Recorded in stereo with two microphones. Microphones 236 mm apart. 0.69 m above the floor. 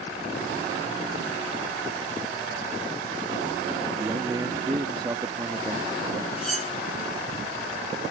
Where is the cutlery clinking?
85° left.